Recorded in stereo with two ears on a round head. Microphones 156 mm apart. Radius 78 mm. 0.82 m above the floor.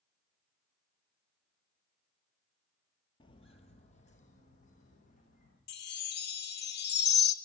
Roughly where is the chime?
Left.